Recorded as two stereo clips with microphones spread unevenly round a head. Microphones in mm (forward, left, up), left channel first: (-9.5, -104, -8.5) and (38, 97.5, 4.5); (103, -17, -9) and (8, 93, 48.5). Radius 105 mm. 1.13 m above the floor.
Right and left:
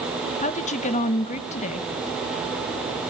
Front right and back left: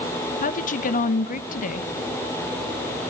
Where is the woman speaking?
45° right, 1.0 m.